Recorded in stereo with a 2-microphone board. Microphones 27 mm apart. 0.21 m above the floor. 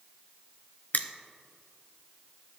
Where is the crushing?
70° left (ahead or behind), 0.5 m.